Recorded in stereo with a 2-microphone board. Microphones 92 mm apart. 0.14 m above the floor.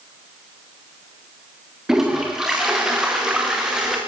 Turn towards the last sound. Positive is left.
turn(degrees=-5)  # may be behind; listen again after turning